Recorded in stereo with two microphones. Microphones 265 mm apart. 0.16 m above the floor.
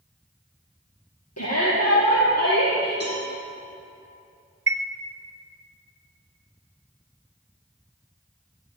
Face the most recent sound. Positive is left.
turn(degrees=-60)  # may be behind; listen again after turning